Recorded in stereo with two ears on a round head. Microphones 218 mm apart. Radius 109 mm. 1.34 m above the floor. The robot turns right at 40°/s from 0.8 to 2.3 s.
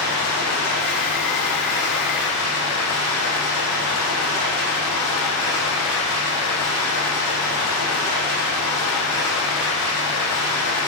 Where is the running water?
50° left, 3.5 m; by 10.9 s 110° left, 3.5 m.